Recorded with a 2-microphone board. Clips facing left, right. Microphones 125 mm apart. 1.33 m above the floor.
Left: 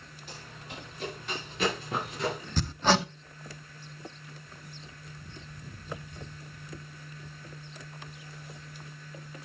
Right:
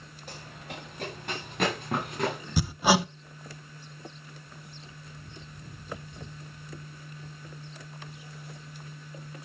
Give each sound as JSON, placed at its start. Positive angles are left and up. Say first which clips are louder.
{"t": 0.3, "sound": "running footsteps", "louder": "right 3 dB", "side_deg": -45, "distance_m": 6.5}
{"t": 2.6, "sound": "hammering", "louder": "right 2 dB", "side_deg": -10, "distance_m": 0.5}